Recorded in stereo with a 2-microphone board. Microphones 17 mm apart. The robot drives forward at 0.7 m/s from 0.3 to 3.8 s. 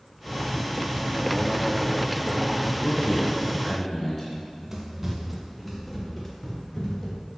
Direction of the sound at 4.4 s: 15° right (ahead or behind).